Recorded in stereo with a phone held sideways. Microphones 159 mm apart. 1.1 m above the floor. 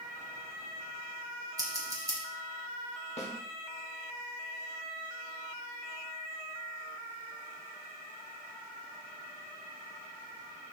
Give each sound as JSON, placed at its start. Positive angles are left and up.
{"t": 1.6, "sound": "scissors", "side_deg": -20, "distance_m": 1.2}
{"t": 3.2, "sound": "a snare drum", "side_deg": 45, "distance_m": 0.9}